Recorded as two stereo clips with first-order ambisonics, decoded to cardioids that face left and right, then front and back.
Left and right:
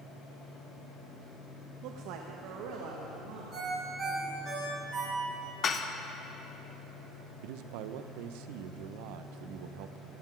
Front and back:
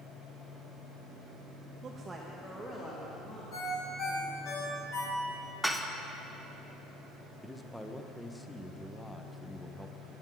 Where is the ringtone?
20° right, 4 m.